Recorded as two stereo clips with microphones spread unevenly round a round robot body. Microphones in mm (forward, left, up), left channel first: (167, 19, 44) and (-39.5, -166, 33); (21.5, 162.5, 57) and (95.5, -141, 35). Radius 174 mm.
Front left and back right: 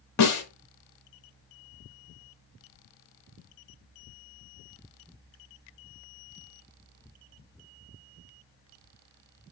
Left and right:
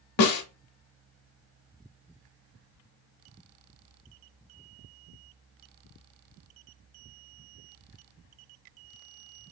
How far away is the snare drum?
About 0.8 m.